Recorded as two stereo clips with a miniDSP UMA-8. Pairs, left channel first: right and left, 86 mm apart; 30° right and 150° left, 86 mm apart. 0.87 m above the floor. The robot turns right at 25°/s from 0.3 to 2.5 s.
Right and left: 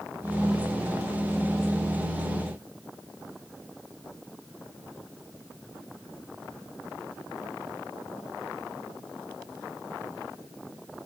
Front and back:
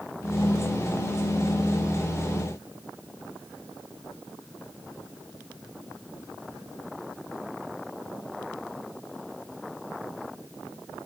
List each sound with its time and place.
Only background noise.